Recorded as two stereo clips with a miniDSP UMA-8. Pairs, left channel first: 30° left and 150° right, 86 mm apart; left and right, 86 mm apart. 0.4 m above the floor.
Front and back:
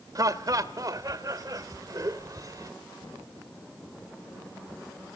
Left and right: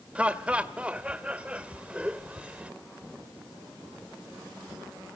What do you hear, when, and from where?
0.1 s laughter: 160° right, 1.6 m